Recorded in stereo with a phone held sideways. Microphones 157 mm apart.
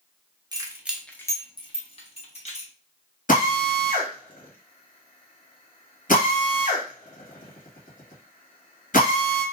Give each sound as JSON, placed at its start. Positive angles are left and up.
{"t": 0.5, "sound": "keys jangling", "side_deg": -25, "distance_m": 0.7}
{"t": 3.3, "sound": "a drill", "side_deg": 65, "distance_m": 1.5}